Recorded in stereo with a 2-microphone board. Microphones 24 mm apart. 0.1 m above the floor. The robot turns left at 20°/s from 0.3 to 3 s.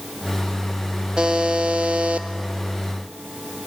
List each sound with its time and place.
1.2 s a buzzer: 35° right (ahead or behind), 0.9 m; by 2.3 s 55° right (ahead or behind), 0.9 m